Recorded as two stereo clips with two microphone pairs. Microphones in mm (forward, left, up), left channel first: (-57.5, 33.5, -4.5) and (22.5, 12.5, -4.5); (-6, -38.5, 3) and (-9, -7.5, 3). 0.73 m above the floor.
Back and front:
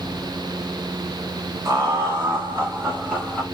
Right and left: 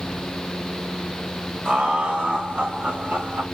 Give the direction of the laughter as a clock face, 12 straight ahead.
11 o'clock.